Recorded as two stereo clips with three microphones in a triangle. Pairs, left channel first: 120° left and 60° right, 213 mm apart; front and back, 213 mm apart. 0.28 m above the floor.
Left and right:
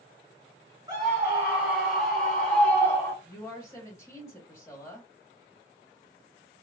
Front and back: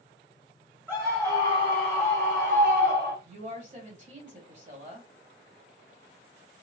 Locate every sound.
0.9 s a scream: 110° right, 1.3 m; by 3.1 s 165° right, 1.9 m
3.2 s a woman speaking: 170° right, 1.2 m